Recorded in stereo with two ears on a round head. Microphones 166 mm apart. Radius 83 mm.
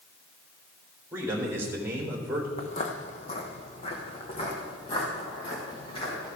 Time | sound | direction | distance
1.1 | a man speaking | 15° right (ahead or behind) | 3 m
2.6 | footsteps | 40° left (ahead or behind) | 1.0 m